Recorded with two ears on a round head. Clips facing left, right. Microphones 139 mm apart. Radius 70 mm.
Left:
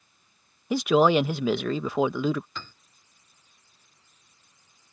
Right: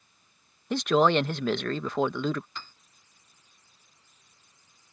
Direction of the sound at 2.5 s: 65° left (ahead or behind).